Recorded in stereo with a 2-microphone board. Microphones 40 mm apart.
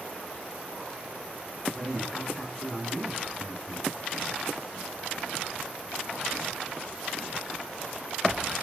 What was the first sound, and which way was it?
A man speaking, 25° left (ahead or behind).